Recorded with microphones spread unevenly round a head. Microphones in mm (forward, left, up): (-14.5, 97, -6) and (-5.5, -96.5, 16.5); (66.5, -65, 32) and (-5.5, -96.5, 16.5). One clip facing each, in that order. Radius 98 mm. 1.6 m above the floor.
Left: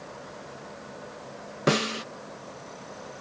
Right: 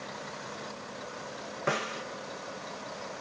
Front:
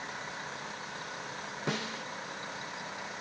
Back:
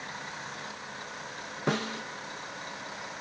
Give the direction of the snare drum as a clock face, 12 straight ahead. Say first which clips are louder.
Left 8 dB, back 6 dB; 8 o'clock.